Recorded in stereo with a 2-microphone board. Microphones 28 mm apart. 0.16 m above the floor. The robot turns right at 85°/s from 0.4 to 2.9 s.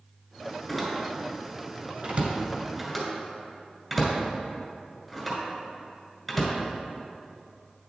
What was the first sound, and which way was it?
A door slam, 10° left (ahead or behind).